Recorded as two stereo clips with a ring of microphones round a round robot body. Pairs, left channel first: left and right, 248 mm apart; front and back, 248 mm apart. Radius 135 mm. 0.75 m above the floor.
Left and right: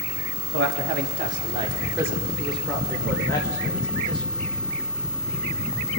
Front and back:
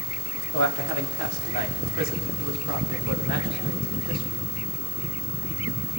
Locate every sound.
0.5 s a man speaking: 135° right, 1.4 m; by 4.2 s 165° left, 2.5 m